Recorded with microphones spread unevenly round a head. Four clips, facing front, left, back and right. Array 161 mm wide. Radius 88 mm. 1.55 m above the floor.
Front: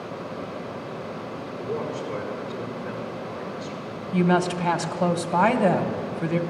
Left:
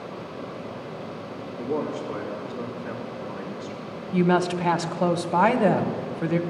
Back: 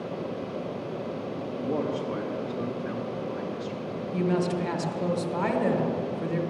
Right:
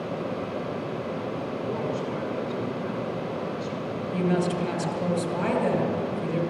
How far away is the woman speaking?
About 1.7 m.